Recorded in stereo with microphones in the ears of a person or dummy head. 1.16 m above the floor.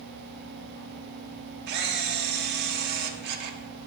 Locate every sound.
1.7 s a camera shutter: 55° right (ahead or behind), 0.9 m